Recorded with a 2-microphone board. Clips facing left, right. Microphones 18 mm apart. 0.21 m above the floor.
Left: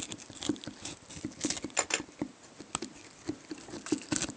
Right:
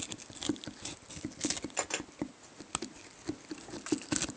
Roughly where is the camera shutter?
Left.